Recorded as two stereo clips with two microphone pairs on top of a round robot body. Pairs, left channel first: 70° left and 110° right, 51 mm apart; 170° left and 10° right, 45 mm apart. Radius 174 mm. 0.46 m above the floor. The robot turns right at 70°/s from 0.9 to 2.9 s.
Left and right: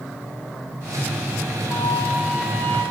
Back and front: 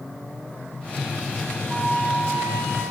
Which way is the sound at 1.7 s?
65° right.